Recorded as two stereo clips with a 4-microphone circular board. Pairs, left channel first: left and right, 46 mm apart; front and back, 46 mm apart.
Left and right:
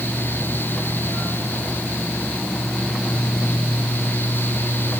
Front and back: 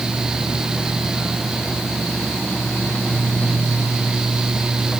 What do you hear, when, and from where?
Only background noise.